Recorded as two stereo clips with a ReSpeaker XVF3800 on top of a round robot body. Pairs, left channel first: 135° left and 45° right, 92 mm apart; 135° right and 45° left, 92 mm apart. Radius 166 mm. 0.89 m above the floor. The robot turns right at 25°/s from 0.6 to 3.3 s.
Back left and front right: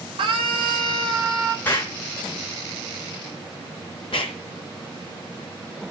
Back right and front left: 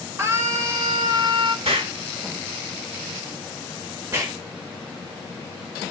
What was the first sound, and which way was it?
A scream, 15° right.